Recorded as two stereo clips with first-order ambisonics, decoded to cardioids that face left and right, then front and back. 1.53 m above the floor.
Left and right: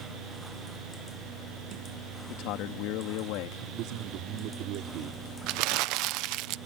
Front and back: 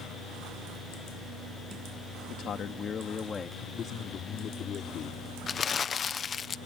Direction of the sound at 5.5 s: 65° right.